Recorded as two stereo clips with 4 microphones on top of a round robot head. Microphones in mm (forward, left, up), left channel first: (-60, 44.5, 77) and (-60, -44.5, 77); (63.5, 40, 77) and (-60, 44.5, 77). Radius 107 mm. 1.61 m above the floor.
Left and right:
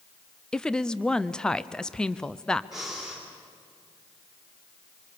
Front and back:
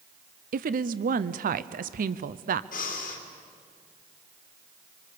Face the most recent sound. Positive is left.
turn(degrees=-5)